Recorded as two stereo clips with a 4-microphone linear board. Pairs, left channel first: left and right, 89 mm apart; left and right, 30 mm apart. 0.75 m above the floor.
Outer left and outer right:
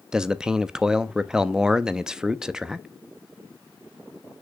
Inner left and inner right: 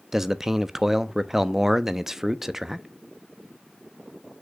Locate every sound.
0.1 s a man speaking: 10° right (ahead or behind), 0.6 m